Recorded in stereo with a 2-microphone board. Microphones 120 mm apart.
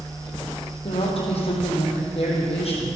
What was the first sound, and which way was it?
A woman speaking, 55° left (ahead or behind).